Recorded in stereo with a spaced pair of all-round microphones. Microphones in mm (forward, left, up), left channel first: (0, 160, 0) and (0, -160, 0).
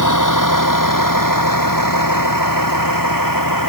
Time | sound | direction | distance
0.0 | a vehicle | 70° left (ahead or behind) | ?